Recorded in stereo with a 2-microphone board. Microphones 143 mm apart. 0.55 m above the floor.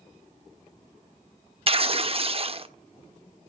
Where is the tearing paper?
40° right (ahead or behind), 0.7 m.